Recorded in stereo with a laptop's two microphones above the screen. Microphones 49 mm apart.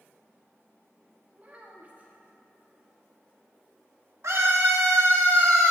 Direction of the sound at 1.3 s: 30° right (ahead or behind).